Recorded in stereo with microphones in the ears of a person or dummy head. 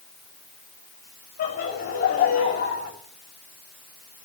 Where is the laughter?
50° left (ahead or behind), 9 m.